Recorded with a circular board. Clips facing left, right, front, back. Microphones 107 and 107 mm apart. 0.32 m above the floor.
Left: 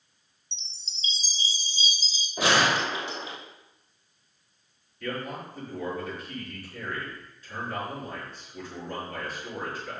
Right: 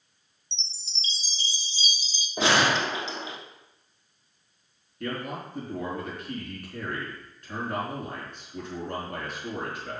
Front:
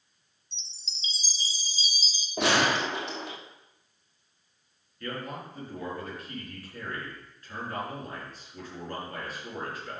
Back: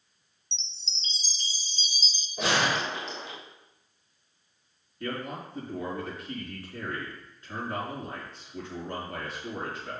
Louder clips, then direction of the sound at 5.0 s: Right 1 dB, back 2 dB; 115° right.